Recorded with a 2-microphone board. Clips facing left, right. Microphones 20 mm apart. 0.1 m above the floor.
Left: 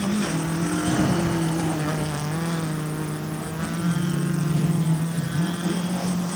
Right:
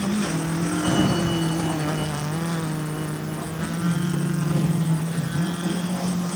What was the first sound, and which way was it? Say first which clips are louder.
A sliding door: right 2 dB; 80° right.